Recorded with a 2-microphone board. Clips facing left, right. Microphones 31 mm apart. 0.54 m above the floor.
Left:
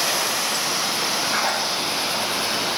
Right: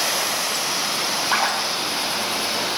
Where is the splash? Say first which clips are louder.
Right 1 dB; 55° right (ahead or behind), 3.5 m.